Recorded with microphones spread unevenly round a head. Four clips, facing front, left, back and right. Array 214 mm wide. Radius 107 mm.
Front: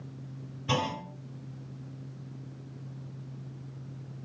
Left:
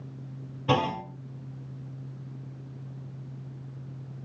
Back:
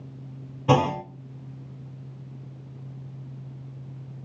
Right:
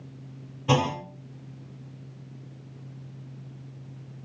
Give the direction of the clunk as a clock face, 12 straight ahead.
6 o'clock.